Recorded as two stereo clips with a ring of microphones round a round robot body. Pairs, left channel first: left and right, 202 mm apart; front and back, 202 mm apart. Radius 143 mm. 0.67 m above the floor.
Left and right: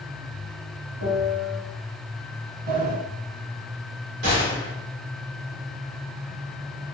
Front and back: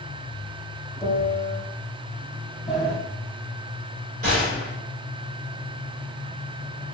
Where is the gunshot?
125° right, 1.7 m.